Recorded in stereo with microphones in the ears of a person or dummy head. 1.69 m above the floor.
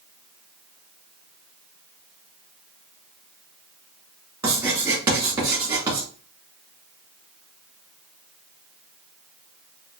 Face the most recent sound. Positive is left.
turn(degrees=-25)  # may be behind; listen again after turning